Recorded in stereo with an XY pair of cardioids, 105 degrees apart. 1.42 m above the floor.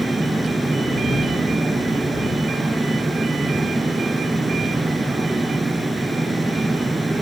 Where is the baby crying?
No baby crying in this recording.